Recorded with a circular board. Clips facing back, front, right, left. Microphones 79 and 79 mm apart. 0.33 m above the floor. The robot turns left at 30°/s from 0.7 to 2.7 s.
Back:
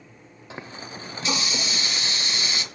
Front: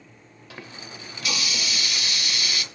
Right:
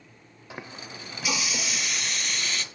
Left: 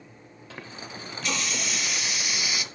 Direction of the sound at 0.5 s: 145° right.